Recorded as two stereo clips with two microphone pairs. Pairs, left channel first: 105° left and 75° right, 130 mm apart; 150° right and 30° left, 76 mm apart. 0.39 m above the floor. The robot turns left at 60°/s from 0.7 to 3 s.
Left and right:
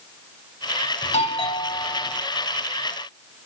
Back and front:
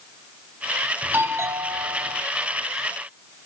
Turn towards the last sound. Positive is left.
turn(degrees=-25)